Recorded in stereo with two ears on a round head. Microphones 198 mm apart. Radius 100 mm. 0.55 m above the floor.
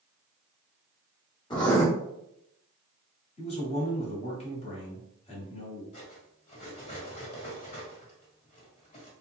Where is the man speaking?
30° left (ahead or behind), 1.5 m.